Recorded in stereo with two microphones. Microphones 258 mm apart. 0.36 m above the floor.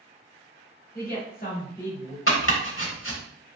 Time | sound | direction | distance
0.9 | a woman speaking | 30° left (ahead or behind) | 1.0 m
2.3 | chopping | 50° left (ahead or behind) | 0.8 m